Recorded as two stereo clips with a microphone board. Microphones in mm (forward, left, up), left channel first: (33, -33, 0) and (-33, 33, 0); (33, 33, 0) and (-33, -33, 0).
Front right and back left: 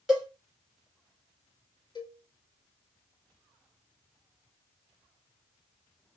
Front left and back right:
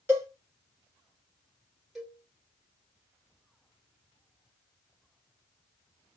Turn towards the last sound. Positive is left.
turn(degrees=-45)